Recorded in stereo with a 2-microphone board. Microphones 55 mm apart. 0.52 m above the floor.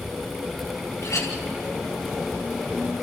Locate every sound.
1.0 s a clink: 70° left (ahead or behind), 3 m